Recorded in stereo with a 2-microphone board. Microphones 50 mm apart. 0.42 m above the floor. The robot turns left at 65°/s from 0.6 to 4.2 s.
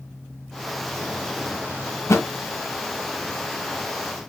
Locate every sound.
2.1 s a thud: 75° left (ahead or behind), 1.9 m; by 2.3 s 65° left (ahead or behind), 1.9 m